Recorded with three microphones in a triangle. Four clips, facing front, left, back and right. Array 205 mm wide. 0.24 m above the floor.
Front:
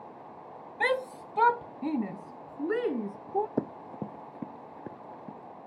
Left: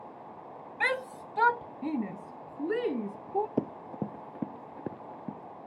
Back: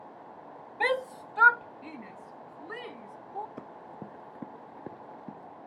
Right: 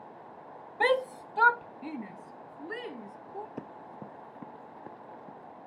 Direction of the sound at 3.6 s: 55° left.